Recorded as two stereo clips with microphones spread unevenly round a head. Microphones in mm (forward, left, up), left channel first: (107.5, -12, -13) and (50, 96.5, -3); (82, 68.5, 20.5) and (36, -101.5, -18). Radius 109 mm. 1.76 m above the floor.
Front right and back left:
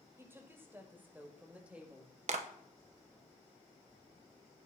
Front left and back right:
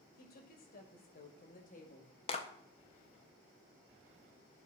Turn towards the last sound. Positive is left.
turn(degrees=125)